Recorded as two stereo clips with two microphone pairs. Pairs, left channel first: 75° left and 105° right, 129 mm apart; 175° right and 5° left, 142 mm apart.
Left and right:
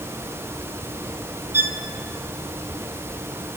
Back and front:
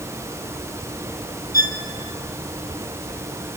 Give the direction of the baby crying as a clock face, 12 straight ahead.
I don't hear a baby crying.